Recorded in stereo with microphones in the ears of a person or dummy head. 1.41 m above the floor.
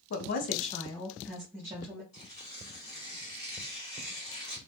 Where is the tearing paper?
35° left (ahead or behind), 1.5 m.